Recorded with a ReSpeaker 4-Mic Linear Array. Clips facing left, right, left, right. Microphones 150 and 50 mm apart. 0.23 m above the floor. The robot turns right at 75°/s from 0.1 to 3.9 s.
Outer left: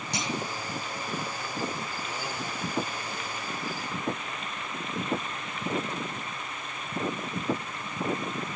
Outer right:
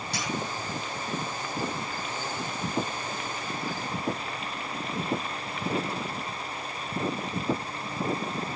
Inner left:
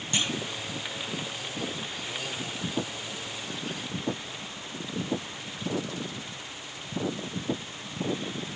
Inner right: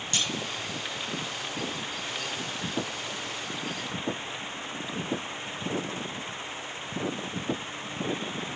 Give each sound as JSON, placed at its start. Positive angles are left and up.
{"t": 0.1, "sound": "a clunk", "side_deg": 20, "distance_m": 0.6}